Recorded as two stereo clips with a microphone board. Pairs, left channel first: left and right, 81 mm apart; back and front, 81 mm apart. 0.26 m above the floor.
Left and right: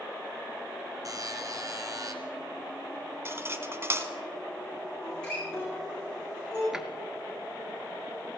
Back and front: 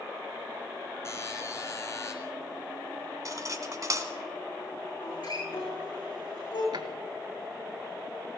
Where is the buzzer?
130° right, 1.9 m.